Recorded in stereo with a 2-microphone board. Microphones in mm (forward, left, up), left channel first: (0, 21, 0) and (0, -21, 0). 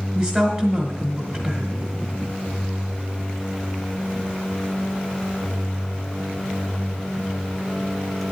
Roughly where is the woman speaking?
Centre.